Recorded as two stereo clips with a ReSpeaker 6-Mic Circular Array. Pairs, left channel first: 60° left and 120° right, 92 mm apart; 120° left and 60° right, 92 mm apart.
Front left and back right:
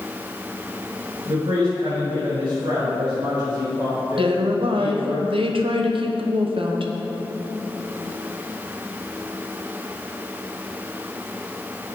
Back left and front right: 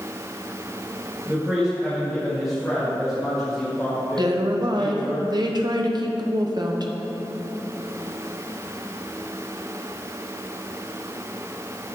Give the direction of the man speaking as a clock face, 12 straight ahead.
5 o'clock.